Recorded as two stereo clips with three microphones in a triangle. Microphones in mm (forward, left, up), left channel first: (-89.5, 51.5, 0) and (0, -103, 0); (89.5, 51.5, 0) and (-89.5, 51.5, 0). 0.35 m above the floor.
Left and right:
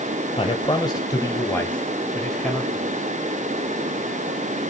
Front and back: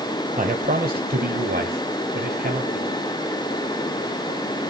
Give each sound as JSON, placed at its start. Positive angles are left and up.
{"t": 0.4, "sound": "a man speaking", "azimuth_deg": 165, "distance_m": 1.3}